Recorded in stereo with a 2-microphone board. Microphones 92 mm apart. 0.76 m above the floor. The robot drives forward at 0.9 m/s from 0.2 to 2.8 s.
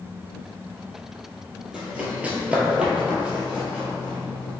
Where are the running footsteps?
10° right (ahead or behind), 1.1 m; by 4.5 s 5° right (ahead or behind), 1.9 m.